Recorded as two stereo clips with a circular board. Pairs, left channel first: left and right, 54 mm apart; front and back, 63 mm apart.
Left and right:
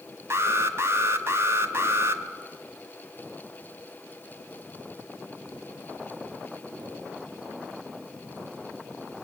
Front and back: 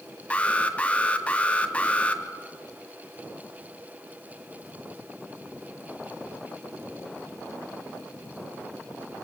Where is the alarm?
65° right, 1.3 m.